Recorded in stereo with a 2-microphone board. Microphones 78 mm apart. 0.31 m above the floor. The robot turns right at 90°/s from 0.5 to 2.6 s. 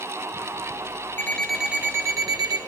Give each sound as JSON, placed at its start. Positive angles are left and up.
{"t": 1.2, "sound": "an alarm clock", "azimuth_deg": 150, "distance_m": 1.2}